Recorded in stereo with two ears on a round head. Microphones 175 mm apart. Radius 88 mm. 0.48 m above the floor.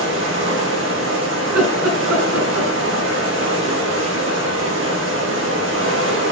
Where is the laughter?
80° right, 5.5 m.